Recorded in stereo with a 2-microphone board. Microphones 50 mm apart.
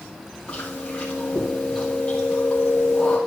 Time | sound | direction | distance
0.5 | chewing | 25° left (ahead or behind) | 5 m